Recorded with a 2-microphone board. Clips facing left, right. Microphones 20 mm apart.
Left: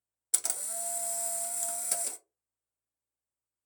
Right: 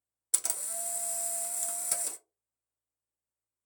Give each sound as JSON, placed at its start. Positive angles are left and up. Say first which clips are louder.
{"t": 0.3, "sound": "a camera shutter", "louder": "even", "side_deg": 5, "distance_m": 0.5}